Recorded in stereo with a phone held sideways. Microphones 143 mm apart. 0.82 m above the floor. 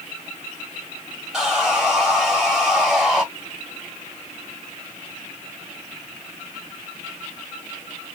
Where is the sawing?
5° right (ahead or behind), 1.5 m.